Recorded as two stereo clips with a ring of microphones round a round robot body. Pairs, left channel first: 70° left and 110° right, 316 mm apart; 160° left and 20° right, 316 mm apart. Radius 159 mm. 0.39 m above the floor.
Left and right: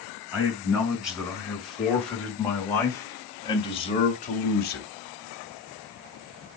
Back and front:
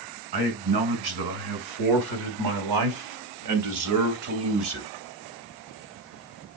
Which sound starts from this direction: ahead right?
A man speaking, at 0.3 s.